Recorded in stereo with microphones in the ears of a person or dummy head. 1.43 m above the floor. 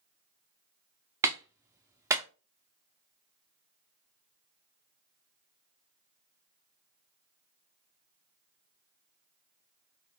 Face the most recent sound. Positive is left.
turn(degrees=-10)  # may be behind; listen again after turning